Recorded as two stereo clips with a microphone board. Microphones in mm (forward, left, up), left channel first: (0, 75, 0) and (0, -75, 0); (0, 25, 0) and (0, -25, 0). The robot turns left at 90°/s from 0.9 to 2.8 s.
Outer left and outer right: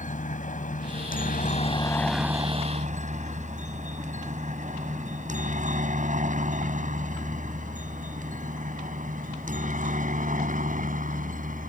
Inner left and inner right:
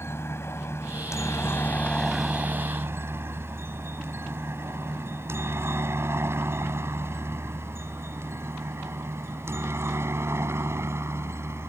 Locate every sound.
0.0 s a helicopter: 55° left (ahead or behind); by 11.7 s 55° right (ahead or behind)